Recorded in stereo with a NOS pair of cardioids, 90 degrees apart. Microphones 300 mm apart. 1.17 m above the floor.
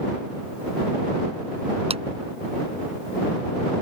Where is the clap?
20° right.